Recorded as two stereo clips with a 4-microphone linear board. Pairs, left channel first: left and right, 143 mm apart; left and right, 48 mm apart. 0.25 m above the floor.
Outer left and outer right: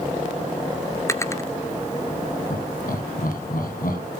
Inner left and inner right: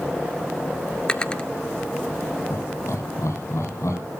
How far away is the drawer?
About 1.0 m.